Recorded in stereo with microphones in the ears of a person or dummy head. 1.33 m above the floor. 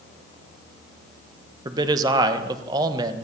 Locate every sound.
1.6 s a man speaking: 20° right (ahead or behind), 1.3 m